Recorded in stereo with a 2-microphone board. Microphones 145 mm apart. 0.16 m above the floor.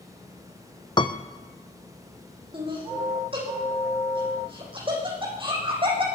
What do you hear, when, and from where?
1.0 s a piano: 30° left (ahead or behind), 1.1 m
2.5 s laughter: 35° right (ahead or behind), 9.5 m